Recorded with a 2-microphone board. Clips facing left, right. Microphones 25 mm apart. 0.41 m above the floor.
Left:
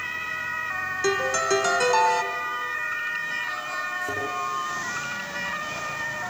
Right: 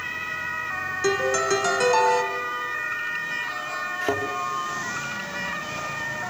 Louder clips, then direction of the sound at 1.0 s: Right 1 dB; 5° left (ahead or behind).